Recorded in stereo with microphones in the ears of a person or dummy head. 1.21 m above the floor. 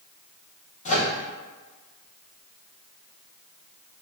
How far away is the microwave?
About 0.7 m.